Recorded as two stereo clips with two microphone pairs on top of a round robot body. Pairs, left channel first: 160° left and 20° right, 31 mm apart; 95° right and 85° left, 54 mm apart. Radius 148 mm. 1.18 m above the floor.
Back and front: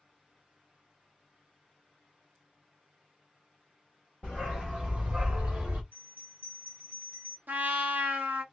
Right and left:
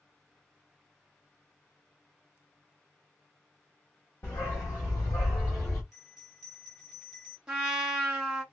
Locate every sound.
4.2 s a dog barking: 125° right, 0.8 m; by 5.8 s 40° right, 1.2 m
5.9 s a bell: 15° right, 1.3 m
7.5 s a trumpet: 5° left, 0.8 m